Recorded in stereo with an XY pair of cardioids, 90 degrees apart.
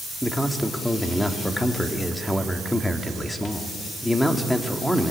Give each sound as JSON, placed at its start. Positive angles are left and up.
{"t": 0.2, "sound": "a man speaking", "azimuth_deg": 10, "distance_m": 2.5}